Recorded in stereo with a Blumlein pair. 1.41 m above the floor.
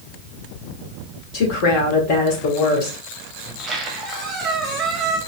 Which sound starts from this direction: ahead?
A squeak, at 3.5 s.